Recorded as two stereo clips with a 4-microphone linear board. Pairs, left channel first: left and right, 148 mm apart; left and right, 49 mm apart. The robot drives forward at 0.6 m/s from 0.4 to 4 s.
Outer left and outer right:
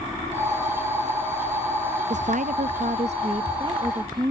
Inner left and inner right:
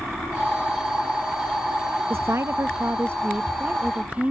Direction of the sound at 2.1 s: 55° right (ahead or behind).